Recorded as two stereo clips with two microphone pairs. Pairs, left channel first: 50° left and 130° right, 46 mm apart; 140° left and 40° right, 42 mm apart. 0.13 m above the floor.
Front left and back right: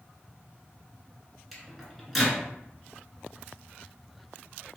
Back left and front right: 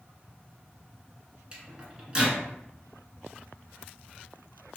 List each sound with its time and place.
1.5 s a microwave: 45° right, 0.9 m